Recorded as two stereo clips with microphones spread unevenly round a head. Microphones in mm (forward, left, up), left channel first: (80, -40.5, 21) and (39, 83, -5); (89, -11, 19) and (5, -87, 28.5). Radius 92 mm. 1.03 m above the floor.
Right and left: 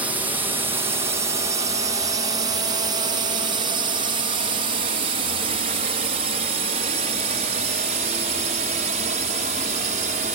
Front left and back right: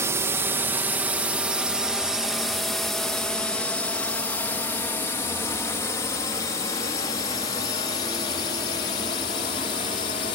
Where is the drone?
160° left; by 10.4 s 90° left.